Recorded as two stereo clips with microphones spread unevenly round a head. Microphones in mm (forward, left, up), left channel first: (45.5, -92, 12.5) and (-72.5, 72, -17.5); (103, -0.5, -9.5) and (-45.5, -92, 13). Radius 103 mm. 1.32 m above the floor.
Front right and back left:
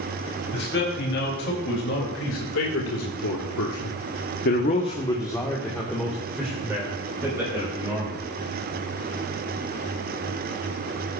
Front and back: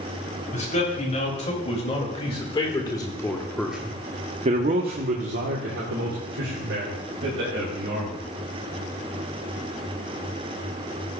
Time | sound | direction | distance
0.5 | a man speaking | 15° right | 3.5 m